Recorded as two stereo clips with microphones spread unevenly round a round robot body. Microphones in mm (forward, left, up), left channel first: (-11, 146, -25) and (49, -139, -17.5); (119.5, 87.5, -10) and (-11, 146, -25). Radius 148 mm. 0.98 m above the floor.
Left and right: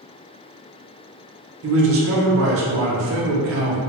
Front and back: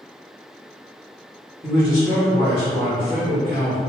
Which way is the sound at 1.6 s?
120° right.